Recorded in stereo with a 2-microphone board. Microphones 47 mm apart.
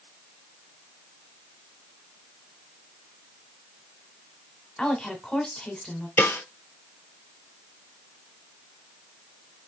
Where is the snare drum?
55° left (ahead or behind), 0.7 m.